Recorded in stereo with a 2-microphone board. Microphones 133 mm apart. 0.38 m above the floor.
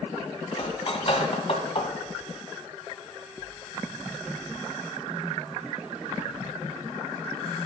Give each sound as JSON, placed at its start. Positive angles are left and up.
{"t": 0.5, "sound": "cutlery clinking", "side_deg": 50, "distance_m": 1.5}